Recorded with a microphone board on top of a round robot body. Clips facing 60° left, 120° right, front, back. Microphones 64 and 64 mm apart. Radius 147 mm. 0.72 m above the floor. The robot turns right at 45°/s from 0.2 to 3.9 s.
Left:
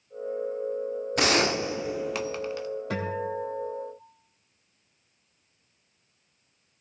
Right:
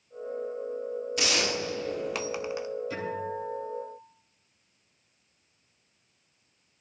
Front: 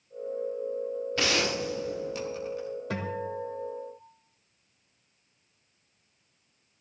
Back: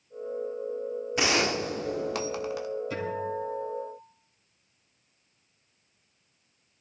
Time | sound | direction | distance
1.2 | a gunshot | 105° left | 0.9 m
2.9 | a guitar | 30° left | 2.5 m